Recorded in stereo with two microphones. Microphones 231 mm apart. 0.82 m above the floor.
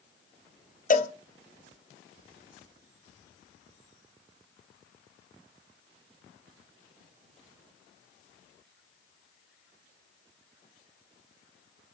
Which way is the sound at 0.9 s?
35° left (ahead or behind).